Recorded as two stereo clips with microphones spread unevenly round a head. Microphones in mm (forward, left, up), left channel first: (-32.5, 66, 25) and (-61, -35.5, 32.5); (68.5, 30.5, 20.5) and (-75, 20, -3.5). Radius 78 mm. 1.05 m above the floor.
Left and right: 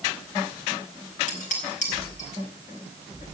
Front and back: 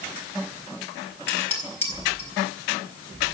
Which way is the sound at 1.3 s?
80° left.